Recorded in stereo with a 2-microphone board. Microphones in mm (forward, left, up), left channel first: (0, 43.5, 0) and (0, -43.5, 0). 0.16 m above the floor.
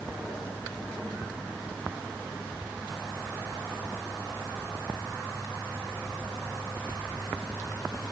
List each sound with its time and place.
Only background noise.